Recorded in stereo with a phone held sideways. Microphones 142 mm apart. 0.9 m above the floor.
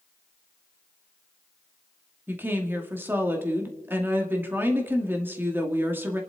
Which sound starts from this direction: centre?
A woman speaking, at 2.3 s.